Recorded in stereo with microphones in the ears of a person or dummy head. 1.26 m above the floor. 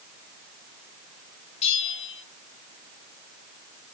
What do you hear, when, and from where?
1.6 s a bell: 35° left (ahead or behind), 4 m